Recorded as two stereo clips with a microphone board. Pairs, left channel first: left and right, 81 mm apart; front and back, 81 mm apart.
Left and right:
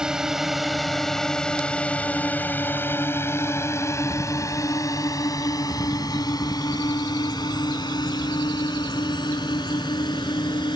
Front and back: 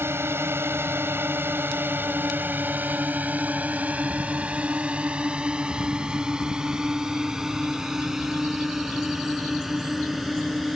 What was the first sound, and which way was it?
A drone, 165° right.